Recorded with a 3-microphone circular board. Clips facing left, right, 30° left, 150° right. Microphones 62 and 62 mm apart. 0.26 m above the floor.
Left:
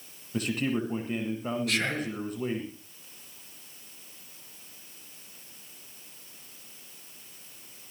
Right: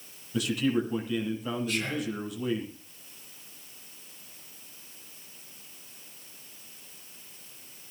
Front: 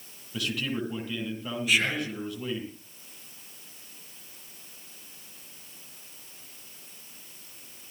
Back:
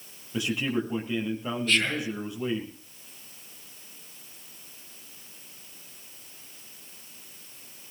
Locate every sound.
0.3 s a man speaking: 140° left, 9 m
1.7 s whispering: 110° left, 5 m